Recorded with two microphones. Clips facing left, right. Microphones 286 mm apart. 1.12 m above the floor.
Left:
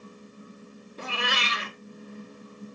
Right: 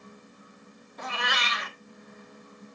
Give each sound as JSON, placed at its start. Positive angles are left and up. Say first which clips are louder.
{"t": 1.0, "sound": "a cat meowing", "louder": "left 2 dB", "side_deg": 35, "distance_m": 0.6}